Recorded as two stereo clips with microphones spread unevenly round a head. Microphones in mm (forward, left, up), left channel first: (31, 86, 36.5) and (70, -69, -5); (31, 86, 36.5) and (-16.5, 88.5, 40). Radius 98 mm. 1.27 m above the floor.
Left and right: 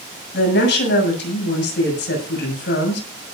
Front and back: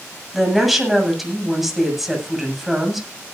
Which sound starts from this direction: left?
A woman speaking, at 0.3 s.